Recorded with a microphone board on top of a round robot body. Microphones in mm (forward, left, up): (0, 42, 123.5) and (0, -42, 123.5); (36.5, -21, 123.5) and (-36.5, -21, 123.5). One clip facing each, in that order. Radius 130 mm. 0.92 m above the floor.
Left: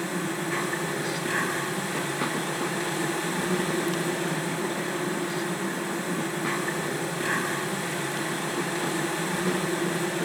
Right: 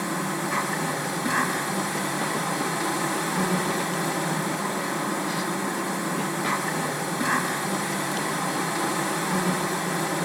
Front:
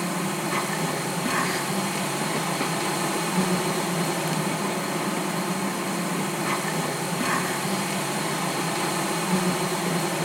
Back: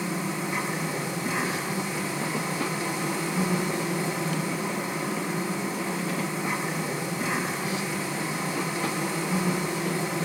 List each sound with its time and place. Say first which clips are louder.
0.0 s an insect: right 2 dB, front 2 dB; 15° right, 6.5 m